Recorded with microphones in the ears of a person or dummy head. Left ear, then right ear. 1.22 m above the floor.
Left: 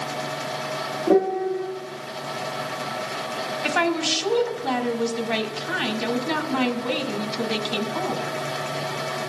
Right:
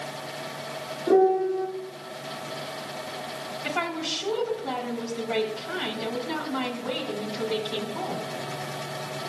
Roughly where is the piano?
Centre.